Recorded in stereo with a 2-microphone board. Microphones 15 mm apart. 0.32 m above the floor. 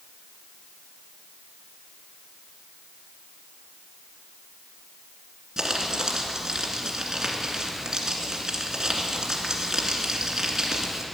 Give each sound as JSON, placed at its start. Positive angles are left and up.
{"t": 5.6, "sound": "crumpling", "side_deg": -40, "distance_m": 2.0}